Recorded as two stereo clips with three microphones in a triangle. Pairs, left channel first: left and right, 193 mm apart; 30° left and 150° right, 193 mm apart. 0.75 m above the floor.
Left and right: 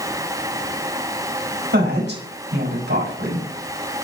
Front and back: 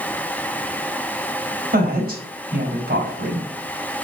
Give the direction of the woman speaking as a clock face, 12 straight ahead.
4 o'clock.